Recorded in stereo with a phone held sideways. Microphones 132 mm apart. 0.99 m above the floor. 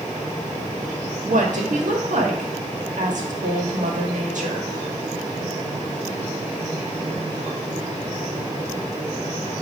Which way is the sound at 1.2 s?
70° right (ahead or behind).